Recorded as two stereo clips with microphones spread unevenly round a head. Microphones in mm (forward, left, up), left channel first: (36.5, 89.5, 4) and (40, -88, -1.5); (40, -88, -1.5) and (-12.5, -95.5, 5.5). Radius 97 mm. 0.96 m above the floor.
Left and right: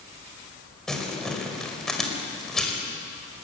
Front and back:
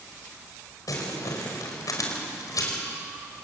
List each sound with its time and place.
0.9 s crumpling: 5° left, 5 m